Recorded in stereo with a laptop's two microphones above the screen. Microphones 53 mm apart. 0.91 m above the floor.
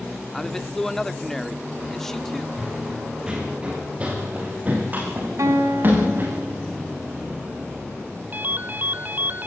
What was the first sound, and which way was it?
A man speaking, 5° left (ahead or behind).